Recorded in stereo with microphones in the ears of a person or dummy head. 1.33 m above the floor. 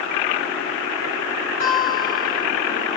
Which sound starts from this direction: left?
A guitar, at 1.6 s.